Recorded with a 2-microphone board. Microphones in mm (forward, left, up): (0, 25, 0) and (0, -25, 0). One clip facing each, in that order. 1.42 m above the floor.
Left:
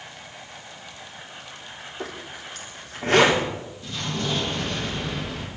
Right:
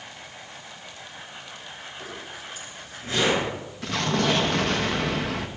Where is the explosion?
80° right, 2 m.